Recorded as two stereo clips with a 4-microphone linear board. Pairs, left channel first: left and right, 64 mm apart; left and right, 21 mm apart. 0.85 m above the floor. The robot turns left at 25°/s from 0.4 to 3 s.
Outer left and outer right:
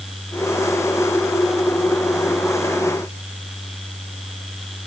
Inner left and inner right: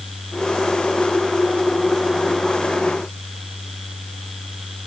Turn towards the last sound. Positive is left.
No sound to turn to.